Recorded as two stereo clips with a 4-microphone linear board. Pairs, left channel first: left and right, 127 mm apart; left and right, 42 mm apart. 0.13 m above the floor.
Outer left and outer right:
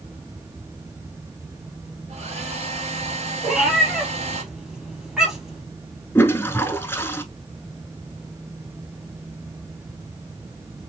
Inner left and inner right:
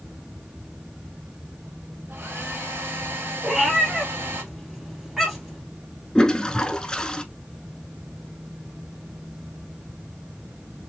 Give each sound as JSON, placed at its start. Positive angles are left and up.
{"t": 2.1, "sound": "a hair dryer", "side_deg": -55, "distance_m": 1.8}
{"t": 3.4, "sound": "a cat meowing", "side_deg": -5, "distance_m": 2.0}
{"t": 6.2, "sound": "a toilet flushing", "side_deg": 20, "distance_m": 0.6}